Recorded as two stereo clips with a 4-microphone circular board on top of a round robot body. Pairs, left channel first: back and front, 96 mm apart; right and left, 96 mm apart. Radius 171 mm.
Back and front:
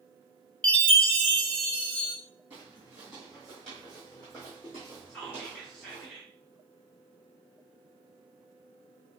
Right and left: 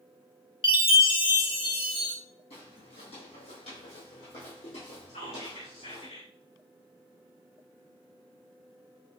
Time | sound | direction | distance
0.6 | a chime | 105° right | 1.4 m
2.5 | footsteps | 80° right | 2.5 m
5.1 | whispering | 100° right | 2.5 m